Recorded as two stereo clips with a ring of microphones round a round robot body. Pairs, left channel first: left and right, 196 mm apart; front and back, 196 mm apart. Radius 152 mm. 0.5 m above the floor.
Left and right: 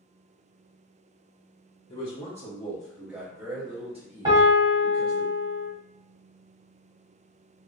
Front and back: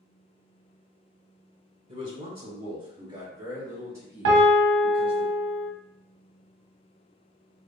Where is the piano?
160° right, 0.6 m.